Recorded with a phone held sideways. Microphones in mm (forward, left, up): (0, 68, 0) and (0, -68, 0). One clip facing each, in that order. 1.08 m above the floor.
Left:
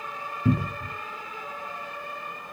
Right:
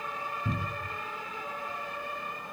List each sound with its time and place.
0.5 s a cupboard door: 80° left, 0.6 m